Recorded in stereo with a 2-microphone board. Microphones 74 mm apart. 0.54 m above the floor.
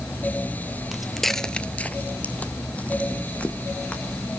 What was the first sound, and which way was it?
Footsteps, 5° right (ahead or behind).